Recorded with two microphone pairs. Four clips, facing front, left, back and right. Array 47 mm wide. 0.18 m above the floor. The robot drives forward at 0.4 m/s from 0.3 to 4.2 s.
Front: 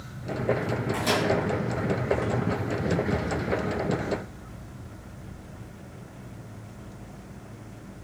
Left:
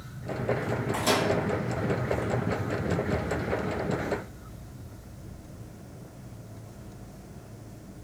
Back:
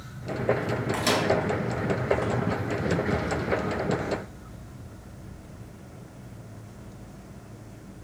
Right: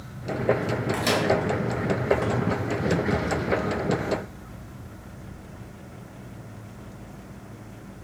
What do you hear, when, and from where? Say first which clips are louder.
0.9 s a microwave: even, even; 130° right, 2 m; by 1.3 s 135° right, 2.5 m